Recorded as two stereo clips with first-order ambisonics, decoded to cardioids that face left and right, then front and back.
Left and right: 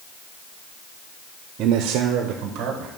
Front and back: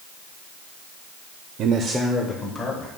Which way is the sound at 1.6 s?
140° right.